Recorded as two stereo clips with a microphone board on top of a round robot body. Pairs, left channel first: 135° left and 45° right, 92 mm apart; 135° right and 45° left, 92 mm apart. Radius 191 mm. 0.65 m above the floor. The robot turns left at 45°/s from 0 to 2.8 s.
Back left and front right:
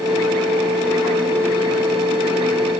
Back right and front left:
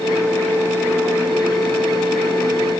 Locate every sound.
Only background noise.